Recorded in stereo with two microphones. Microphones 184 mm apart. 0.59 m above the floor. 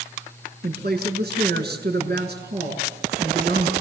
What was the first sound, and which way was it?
A woman speaking, 60° right (ahead or behind).